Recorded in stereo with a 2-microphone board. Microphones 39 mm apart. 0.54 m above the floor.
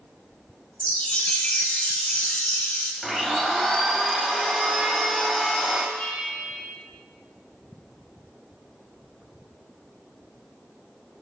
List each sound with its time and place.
0.8 s a chime: 30° left (ahead or behind), 0.8 m
3.0 s a blender: 5° left (ahead or behind), 1.1 m
6.0 s a bell: 55° left (ahead or behind), 3 m